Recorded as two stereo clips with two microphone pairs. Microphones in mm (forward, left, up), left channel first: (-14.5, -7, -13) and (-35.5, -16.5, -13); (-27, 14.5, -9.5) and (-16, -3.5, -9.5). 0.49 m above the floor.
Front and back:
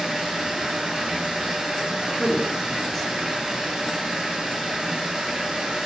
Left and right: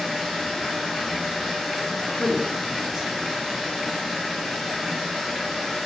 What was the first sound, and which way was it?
Running water, 145° right.